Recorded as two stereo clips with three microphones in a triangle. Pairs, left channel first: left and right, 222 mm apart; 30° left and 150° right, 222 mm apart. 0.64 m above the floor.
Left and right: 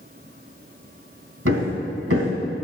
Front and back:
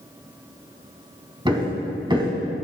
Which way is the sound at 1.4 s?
80° right.